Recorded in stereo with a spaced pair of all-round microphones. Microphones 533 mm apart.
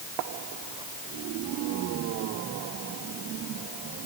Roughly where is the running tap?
No running tap in this recording.